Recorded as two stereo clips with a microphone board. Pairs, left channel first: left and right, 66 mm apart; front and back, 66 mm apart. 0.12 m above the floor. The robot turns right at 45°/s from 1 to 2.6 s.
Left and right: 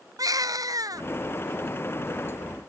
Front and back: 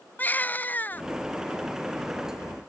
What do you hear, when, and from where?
0.2 s a baby crying: 60° right